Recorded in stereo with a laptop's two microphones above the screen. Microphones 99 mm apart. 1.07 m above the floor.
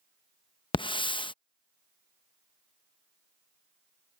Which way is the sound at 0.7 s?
55° left (ahead or behind).